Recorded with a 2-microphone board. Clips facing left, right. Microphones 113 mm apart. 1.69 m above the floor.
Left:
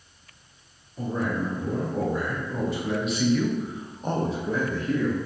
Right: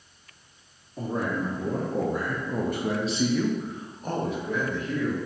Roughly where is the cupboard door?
I don't hear a cupboard door.